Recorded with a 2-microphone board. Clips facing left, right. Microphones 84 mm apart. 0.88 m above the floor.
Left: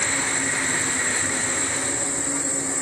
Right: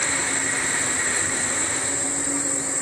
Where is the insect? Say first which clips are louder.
Left 1 dB; 5° right (ahead or behind), 8 m.